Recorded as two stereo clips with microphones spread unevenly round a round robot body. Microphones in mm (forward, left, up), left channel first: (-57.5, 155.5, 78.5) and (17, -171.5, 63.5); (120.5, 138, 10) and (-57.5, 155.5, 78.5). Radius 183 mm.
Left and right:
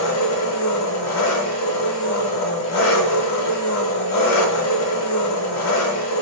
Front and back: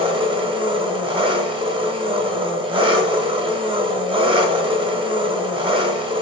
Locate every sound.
0.0 s an engine running: 135° left, 0.8 m